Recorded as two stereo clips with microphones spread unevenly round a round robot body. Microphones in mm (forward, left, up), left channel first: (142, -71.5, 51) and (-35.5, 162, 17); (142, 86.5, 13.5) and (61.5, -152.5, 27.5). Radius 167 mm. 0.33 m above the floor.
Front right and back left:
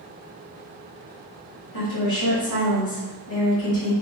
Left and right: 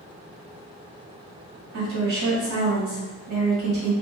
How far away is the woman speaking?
About 1.4 m.